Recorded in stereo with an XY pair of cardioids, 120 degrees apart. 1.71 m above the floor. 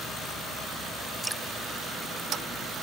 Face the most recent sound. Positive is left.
turn(degrees=5)